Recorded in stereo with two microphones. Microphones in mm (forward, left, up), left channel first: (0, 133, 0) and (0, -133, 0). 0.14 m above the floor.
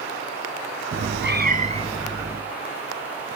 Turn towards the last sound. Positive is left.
turn(degrees=-10)  # may be behind; listen again after turning